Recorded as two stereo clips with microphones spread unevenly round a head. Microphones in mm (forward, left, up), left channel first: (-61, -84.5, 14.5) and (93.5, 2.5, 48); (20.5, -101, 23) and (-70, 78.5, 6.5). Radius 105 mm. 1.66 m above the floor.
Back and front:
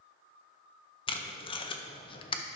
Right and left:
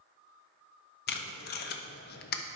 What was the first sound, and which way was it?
Tape being pulled, 85° right.